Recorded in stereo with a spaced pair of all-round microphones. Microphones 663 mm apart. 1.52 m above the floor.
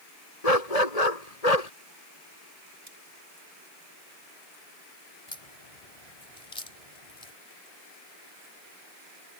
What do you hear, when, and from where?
0.4 s a dog barking: 75° left (ahead or behind)
2.9 s cutlery clinking: 80° right
5.3 s a crack: 60° left (ahead or behind)